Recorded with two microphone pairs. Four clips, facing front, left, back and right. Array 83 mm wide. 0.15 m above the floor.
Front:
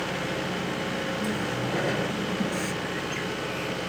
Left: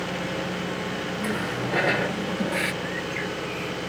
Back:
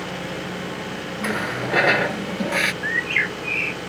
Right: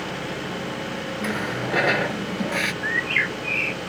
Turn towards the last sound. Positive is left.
turn(degrees=-145)